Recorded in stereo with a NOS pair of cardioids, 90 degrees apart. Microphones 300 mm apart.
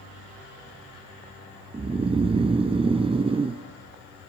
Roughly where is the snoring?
Ahead.